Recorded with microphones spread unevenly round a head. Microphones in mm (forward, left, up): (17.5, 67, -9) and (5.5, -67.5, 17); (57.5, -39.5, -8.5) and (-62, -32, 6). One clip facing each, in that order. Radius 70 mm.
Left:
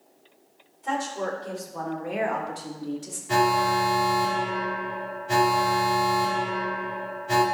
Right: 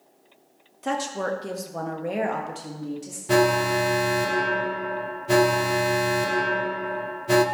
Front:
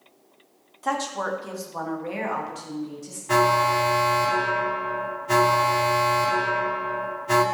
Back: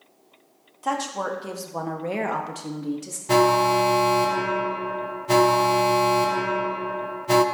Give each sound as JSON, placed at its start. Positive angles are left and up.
{"t": 0.8, "sound": "a woman speaking", "azimuth_deg": -95, "distance_m": 1.8}
{"t": 3.3, "sound": "an alarm", "azimuth_deg": -125, "distance_m": 1.2}